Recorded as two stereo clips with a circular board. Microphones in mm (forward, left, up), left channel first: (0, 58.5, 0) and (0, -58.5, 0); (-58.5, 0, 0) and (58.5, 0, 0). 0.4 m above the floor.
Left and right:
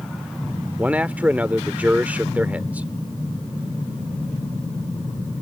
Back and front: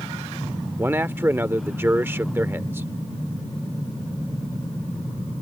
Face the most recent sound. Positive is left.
turn(degrees=-35)